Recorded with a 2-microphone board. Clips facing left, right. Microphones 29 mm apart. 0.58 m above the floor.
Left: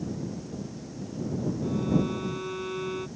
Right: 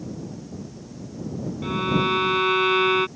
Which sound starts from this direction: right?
A violin, at 1.6 s.